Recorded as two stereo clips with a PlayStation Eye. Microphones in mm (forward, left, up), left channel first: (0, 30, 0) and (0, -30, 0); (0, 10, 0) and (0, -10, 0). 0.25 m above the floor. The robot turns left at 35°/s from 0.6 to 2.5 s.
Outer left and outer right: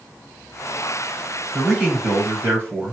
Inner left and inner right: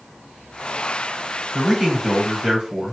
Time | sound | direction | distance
1.5 | a man speaking | 10° right | 1.9 m